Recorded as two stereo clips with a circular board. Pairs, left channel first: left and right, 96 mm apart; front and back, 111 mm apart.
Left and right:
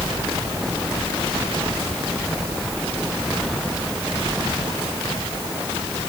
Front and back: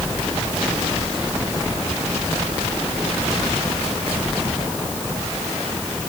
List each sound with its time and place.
Only background noise.